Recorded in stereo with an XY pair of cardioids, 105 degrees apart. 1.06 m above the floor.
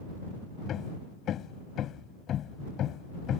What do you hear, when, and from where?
0.7 s hammering: 65° left